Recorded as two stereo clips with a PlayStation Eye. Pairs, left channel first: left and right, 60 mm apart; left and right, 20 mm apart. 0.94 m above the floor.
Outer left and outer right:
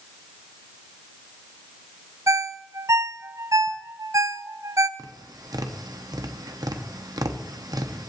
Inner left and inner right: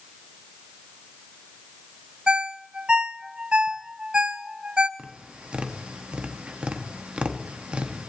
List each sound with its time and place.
2.3 s a ringtone: 55° right (ahead or behind), 0.5 m
5.0 s tapping: 80° right, 1.0 m